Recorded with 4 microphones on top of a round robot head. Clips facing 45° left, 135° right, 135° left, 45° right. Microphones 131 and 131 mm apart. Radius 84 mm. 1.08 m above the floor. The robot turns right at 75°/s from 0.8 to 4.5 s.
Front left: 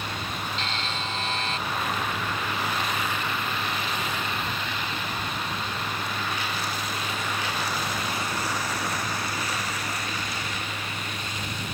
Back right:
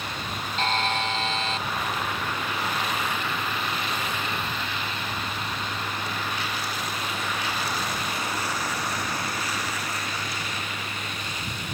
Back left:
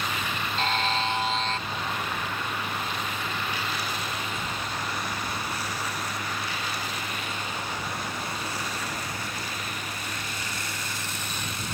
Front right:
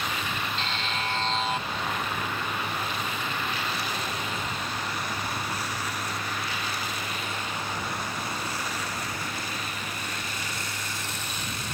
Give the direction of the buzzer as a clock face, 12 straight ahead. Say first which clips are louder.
Back right 6 dB, back left 5 dB; 6 o'clock.